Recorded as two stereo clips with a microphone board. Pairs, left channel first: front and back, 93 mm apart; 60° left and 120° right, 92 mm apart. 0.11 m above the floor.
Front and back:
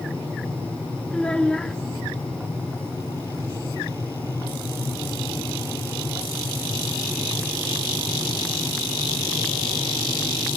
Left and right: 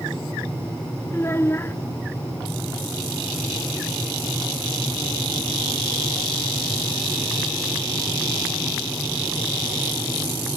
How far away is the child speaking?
About 0.7 m.